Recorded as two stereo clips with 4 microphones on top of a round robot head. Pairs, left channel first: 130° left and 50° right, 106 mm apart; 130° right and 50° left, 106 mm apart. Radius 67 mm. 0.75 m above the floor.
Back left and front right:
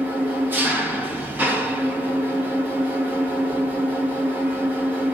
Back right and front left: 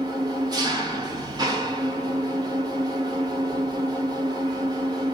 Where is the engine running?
15° left, 1.0 m.